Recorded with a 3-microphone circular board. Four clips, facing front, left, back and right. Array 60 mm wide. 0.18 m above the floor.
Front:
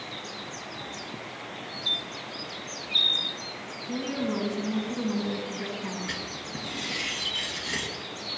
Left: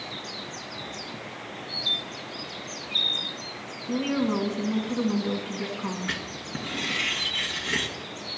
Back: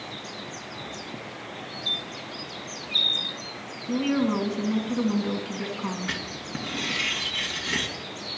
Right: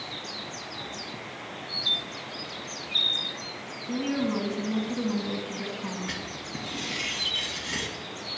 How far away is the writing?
About 2 m.